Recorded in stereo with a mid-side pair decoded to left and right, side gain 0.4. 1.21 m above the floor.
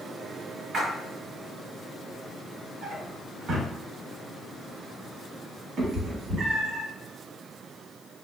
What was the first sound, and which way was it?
A splash, 70° right.